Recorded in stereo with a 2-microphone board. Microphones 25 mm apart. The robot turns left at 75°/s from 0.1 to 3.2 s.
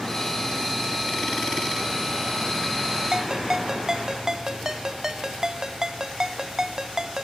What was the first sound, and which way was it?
A ringtone, 30° right (ahead or behind).